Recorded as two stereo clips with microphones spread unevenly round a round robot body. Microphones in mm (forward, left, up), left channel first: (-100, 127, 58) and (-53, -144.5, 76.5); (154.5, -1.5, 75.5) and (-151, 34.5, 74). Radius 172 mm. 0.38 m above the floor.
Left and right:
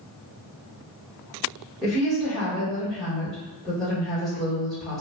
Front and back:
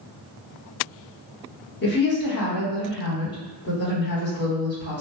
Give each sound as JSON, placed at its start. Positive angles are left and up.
{"t": 1.8, "sound": "a woman speaking", "azimuth_deg": 15, "distance_m": 1.5}